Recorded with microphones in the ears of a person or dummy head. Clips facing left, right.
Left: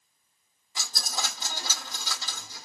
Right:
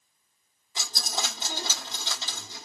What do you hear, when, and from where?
0.8 s a dropped coin: 25° right (ahead or behind), 0.9 m